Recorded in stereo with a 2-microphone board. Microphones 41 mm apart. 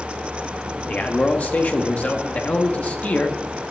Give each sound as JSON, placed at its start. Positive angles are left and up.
{"t": 0.9, "sound": "a man speaking", "side_deg": 40, "distance_m": 0.8}